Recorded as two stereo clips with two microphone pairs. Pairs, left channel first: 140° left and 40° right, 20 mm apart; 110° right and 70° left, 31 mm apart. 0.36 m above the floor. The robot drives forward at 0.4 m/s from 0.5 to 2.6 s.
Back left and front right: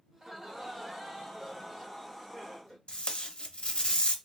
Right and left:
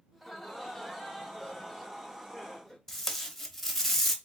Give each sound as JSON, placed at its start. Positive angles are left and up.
{"t": 0.1, "sound": "laughter", "azimuth_deg": -20, "distance_m": 1.2}
{"t": 2.9, "sound": "tape being pulled", "azimuth_deg": 175, "distance_m": 0.6}